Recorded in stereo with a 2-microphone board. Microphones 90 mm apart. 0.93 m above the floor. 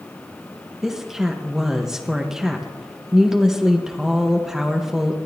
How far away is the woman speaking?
About 1.0 m.